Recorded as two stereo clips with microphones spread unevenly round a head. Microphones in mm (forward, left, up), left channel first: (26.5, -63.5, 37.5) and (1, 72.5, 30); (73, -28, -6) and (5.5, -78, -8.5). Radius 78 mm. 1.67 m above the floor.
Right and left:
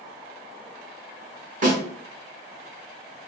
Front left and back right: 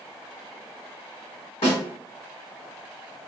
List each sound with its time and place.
1.6 s a snare drum: 65° left, 1.5 m